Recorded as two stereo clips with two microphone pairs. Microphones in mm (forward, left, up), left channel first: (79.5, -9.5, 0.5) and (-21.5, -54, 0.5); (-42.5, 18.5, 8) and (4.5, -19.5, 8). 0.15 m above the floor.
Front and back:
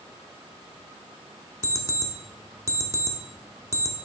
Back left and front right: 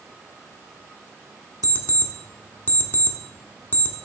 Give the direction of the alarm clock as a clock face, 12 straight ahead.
6 o'clock.